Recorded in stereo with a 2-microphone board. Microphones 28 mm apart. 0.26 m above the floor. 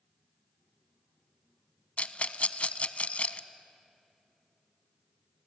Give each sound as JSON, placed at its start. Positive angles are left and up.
{"t": 2.0, "sound": "a rattle", "side_deg": 50, "distance_m": 0.7}